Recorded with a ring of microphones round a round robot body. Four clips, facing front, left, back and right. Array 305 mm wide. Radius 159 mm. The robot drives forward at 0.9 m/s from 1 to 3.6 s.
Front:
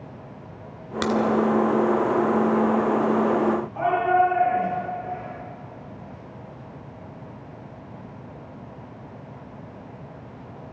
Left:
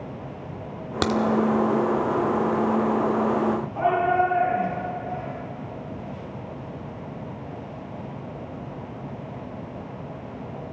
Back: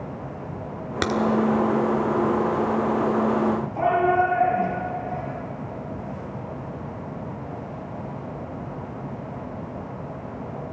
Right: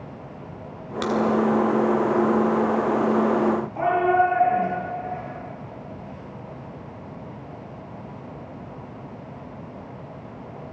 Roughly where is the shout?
Behind right.